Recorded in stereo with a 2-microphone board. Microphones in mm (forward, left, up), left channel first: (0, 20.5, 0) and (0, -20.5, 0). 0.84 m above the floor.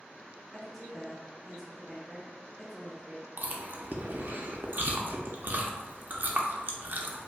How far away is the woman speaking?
About 0.6 m.